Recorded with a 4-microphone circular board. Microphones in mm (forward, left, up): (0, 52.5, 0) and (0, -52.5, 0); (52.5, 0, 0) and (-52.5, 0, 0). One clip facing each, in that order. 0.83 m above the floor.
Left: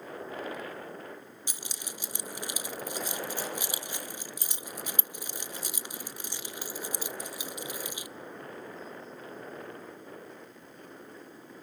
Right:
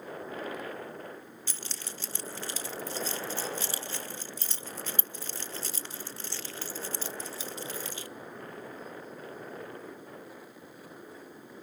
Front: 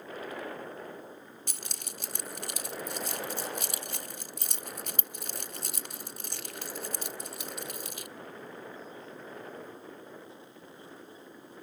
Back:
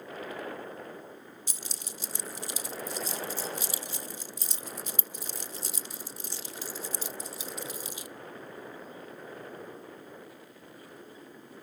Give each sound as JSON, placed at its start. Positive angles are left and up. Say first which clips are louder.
{"t": 1.5, "sound": "keys jangling", "louder": "left 1 dB, front 1 dB", "azimuth_deg": 15, "distance_m": 0.6}